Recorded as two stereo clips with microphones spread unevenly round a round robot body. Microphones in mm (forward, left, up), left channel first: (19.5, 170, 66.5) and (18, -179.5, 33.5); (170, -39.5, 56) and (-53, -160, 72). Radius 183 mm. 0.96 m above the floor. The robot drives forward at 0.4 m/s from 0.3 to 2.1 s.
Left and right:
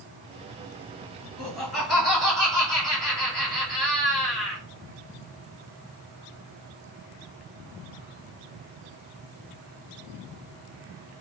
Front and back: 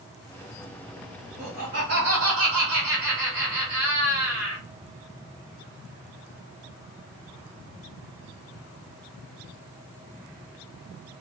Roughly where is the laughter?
Behind.